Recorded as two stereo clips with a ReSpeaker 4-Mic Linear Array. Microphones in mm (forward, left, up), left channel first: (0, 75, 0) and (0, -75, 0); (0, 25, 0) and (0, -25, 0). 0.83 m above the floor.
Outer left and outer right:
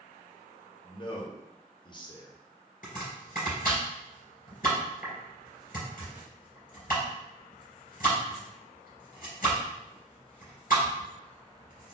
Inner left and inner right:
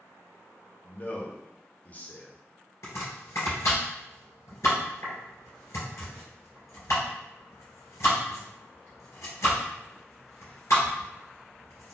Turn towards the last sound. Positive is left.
turn(degrees=70)  # may be behind; listen again after turning